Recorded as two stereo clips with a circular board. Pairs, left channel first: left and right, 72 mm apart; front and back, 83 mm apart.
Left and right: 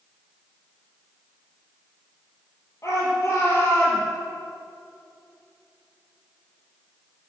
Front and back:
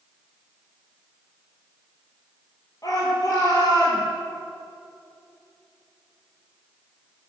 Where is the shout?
40° left, 5.5 m.